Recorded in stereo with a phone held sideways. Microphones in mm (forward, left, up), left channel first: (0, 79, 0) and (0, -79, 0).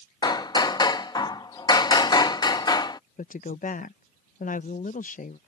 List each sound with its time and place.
0.2 s hammering: 25° left (ahead or behind)
3.2 s a woman speaking: 55° left (ahead or behind)